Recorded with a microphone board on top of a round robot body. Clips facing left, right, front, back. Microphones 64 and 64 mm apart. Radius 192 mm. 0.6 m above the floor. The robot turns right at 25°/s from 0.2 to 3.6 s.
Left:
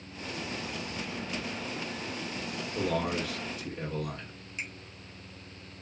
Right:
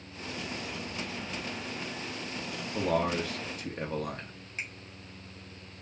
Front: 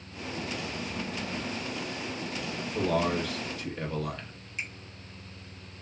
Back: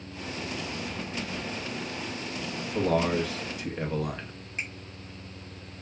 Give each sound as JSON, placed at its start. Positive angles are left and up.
{"t": 2.7, "sound": "a man speaking", "azimuth_deg": -135, "distance_m": 1.2}
{"t": 4.6, "sound": "a finger snap", "azimuth_deg": -135, "distance_m": 1.4}